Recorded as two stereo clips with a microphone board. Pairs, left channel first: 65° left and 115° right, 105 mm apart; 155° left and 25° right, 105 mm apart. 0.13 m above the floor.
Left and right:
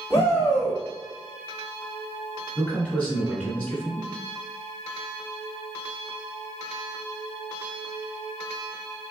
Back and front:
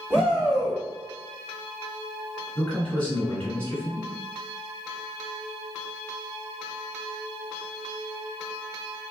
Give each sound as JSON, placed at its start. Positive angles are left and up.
{"t": 0.1, "sound": "a shout", "azimuth_deg": 40, "distance_m": 1.2}
{"t": 2.5, "sound": "a man speaking", "azimuth_deg": 115, "distance_m": 1.7}